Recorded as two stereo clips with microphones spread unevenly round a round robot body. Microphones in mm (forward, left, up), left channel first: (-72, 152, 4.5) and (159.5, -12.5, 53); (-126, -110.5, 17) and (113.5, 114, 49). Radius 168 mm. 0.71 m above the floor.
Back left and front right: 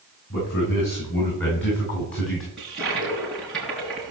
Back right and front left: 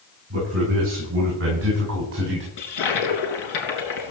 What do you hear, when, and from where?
0.3 s a man speaking: 95° left, 8.5 m; by 2.5 s 100° left, 5.5 m
2.6 s a toilet flushing: 125° right, 3.5 m